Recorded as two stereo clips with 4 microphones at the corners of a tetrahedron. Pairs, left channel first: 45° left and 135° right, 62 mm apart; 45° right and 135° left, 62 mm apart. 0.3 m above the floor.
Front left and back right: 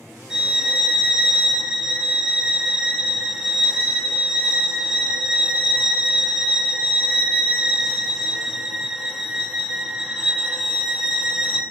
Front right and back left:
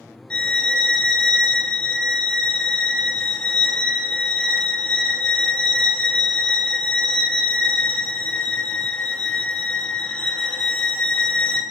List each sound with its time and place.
0.3 s a violin: 80° right, 0.8 m